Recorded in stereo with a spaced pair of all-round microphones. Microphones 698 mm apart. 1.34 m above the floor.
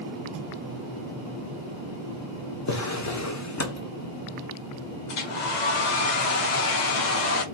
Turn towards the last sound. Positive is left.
turn(degrees=80)